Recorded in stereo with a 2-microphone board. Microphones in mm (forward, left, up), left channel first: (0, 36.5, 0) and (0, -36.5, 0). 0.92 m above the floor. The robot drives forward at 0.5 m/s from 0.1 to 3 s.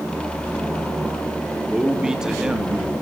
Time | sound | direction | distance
1.7 | a man speaking | 5° right (ahead or behind) | 1.7 m